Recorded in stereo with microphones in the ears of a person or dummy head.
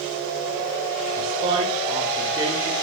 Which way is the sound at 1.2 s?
45° right (ahead or behind).